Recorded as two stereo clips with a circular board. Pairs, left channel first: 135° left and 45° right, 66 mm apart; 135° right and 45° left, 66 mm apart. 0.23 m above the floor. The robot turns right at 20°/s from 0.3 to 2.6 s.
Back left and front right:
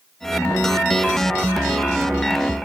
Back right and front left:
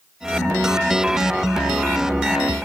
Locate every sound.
Only background noise.